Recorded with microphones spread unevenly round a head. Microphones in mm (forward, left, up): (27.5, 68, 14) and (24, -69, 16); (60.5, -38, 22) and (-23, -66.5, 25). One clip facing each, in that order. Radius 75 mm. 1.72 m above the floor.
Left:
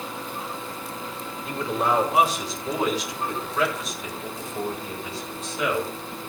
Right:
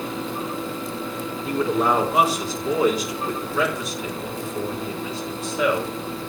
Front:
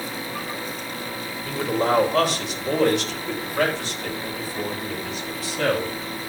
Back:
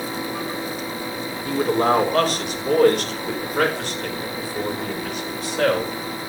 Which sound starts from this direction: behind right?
A man speaking, at 1.4 s.